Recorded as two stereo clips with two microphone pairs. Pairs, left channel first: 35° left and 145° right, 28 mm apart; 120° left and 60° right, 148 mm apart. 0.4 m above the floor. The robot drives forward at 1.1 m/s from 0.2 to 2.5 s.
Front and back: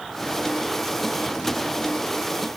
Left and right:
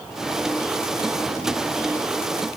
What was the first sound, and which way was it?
Only background noise.